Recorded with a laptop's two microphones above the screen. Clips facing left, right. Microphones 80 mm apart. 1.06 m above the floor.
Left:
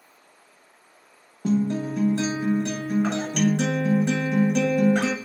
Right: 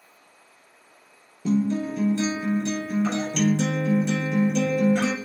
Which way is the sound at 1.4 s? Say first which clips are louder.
Even; 55° left (ahead or behind).